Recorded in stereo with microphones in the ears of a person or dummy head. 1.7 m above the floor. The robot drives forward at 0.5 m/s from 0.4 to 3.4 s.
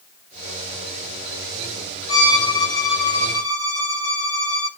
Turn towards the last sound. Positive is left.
turn(degrees=15)  # may be behind; listen again after turning